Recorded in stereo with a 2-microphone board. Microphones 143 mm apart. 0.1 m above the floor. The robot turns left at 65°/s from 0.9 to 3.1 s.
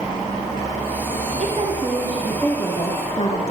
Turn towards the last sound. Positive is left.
turn(degrees=125)